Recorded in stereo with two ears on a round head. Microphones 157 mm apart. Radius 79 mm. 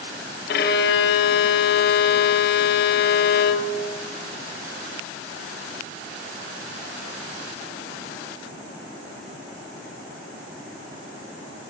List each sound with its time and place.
0.5 s a violin: 60° left (ahead or behind), 0.8 m